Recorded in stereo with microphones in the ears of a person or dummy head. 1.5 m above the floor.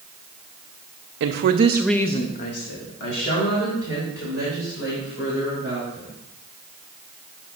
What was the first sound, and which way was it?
A woman speaking, 60° right (ahead or behind).